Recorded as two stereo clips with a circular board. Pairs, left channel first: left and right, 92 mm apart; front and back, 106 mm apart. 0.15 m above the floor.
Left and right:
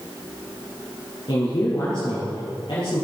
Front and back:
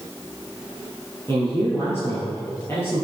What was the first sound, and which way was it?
A man speaking, 65° left.